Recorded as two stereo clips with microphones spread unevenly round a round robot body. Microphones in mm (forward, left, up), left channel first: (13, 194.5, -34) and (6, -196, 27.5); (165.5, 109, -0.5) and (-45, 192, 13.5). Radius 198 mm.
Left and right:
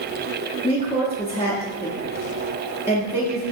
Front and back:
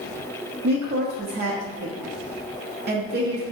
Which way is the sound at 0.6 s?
145° left.